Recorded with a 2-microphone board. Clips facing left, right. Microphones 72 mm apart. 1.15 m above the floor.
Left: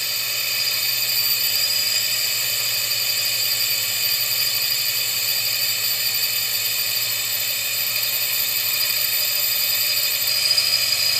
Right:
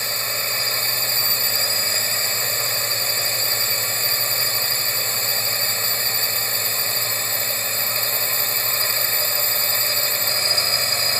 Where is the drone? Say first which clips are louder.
Right 4 dB; 35° right (ahead or behind).